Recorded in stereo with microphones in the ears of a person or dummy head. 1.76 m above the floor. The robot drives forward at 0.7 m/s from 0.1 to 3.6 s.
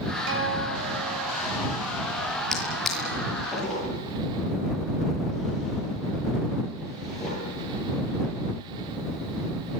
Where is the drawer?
Centre (ahead or behind), 9 m.